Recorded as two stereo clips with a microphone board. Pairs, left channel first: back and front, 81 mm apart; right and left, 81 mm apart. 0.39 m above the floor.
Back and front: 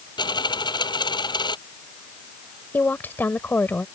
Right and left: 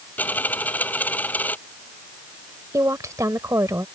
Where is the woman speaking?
120° left.